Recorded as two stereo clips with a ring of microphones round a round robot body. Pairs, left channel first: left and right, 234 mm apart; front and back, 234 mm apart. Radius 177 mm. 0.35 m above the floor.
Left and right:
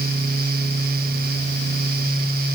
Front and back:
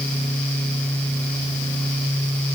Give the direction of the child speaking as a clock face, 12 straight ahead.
No child speaking in this recording.